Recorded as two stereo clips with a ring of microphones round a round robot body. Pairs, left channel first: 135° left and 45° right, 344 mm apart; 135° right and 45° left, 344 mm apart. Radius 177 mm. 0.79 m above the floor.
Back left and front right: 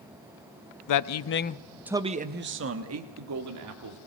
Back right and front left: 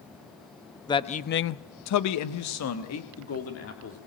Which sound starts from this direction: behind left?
A man speaking, at 0.9 s.